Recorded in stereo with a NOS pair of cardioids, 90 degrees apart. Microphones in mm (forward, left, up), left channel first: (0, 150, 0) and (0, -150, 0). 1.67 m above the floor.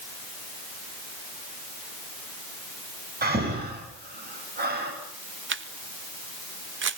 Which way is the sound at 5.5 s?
40° right.